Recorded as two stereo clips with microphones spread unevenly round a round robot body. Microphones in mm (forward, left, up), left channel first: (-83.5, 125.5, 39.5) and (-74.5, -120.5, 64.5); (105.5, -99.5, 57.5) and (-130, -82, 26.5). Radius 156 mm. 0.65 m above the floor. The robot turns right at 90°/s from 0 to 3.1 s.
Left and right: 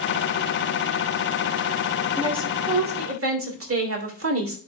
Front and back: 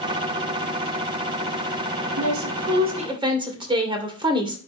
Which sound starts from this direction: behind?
A woman speaking, at 2.2 s.